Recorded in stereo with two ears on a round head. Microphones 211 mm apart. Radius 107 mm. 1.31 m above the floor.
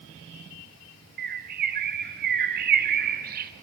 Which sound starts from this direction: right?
A bird, at 1.2 s.